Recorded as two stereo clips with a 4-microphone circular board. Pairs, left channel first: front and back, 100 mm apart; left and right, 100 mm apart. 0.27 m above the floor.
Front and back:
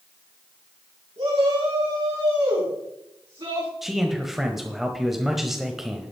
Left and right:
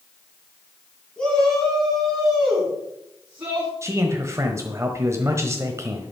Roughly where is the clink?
I don't hear a clink.